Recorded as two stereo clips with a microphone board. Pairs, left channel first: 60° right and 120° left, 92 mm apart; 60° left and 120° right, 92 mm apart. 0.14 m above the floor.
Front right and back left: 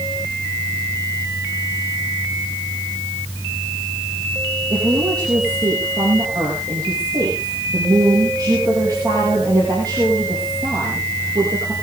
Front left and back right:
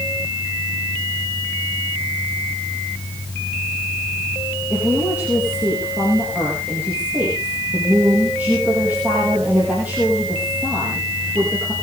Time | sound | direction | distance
4.7 | a woman speaking | 165° left | 4.5 m